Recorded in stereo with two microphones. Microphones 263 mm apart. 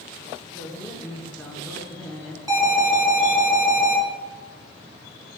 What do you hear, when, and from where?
0.5 s a man speaking: 5° left (ahead or behind), 3 m
2.5 s an alarm: 15° right (ahead or behind), 3.5 m